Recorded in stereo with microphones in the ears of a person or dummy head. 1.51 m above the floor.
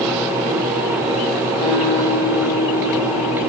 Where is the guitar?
25° left (ahead or behind), 9.5 m.